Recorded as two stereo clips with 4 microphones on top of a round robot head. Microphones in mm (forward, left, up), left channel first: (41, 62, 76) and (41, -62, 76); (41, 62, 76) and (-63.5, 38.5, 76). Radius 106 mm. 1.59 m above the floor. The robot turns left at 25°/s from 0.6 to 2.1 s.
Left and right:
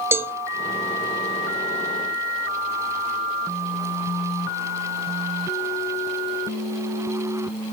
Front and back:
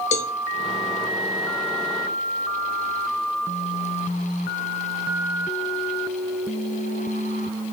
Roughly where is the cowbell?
Ahead.